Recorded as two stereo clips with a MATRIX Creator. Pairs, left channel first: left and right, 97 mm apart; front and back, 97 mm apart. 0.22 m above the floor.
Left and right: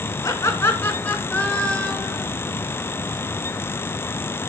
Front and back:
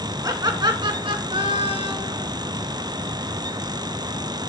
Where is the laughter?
140° left, 2.5 m; by 2.2 s 175° left, 4 m.